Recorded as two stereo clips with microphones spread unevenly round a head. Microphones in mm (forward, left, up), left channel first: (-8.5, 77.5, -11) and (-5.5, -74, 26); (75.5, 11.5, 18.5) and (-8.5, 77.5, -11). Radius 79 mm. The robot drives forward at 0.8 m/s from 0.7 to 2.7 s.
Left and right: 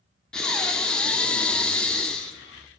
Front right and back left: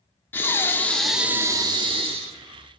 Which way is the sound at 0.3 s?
10° right.